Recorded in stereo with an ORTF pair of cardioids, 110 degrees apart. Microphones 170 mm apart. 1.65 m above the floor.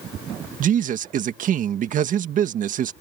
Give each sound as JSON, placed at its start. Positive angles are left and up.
{"t": 0.6, "sound": "a man speaking", "azimuth_deg": -55}